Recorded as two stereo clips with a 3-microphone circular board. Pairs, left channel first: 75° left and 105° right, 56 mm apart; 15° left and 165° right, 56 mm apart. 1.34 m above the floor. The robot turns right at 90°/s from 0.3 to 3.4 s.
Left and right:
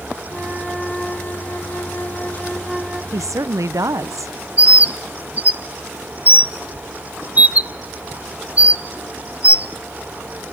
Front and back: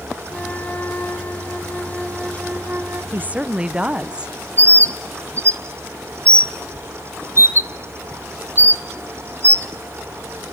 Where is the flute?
60° right, 1.4 m; by 3.0 s 175° right, 1.4 m.